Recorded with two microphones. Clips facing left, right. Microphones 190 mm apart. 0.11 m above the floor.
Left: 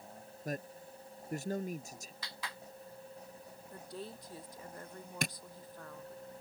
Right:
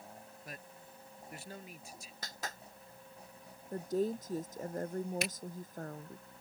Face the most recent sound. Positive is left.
turn(degrees=55)  # may be behind; listen again after turning